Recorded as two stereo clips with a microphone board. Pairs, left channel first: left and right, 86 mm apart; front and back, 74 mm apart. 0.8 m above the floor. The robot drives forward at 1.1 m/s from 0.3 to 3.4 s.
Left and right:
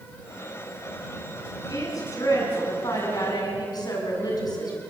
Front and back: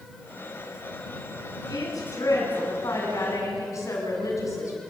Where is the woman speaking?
40° left, 9.5 m; by 4.8 s 45° left, 8 m.